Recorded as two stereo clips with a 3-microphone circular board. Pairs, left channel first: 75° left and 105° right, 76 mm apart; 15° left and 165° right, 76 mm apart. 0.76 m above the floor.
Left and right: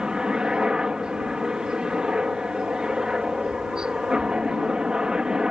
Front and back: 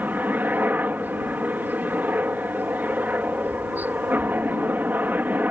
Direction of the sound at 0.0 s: 170° right.